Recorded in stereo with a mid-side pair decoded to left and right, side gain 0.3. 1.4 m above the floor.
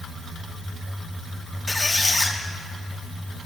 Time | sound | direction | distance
1.7 | a squeak | 20° left | 1.0 m